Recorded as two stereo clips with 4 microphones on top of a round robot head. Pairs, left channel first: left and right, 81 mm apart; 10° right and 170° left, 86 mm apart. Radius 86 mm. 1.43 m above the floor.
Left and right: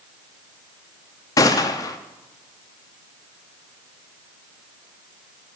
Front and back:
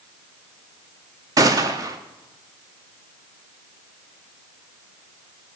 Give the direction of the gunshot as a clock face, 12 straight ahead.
8 o'clock.